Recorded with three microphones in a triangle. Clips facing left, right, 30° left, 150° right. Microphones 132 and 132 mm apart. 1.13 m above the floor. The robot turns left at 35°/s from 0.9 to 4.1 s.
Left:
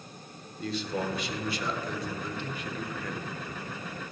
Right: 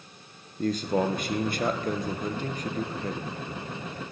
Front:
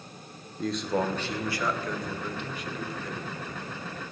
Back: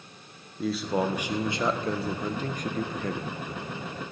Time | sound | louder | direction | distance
0.6 | a man speaking | right 6 dB, back 1 dB | 65° right | 1.0 m